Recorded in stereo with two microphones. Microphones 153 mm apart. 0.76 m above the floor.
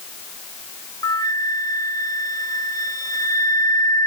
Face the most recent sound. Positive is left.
turn(degrees=25)  # may be behind; listen again after turning